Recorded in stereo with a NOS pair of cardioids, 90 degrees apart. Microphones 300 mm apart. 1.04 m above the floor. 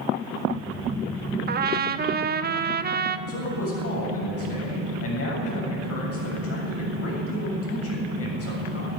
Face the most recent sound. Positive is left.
turn(degrees=50)